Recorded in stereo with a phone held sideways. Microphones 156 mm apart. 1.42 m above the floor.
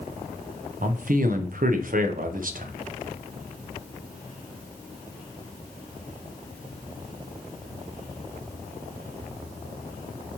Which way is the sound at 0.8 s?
60° right (ahead or behind).